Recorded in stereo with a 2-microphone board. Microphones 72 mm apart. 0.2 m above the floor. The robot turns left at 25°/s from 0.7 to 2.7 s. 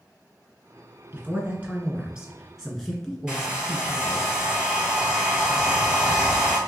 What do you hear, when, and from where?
1.1 s a man speaking: 135° right, 2.0 m; by 4.3 s 175° right, 2.0 m
3.3 s a hair dryer: 10° right (ahead or behind), 1.3 m